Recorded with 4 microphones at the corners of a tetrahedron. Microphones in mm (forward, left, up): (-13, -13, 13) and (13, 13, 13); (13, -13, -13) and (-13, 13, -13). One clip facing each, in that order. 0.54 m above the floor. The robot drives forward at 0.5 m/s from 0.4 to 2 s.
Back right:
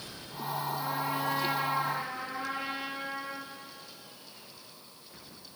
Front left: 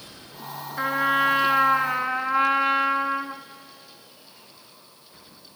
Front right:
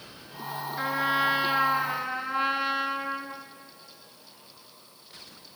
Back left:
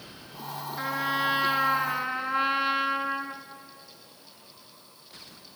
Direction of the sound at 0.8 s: 40° left.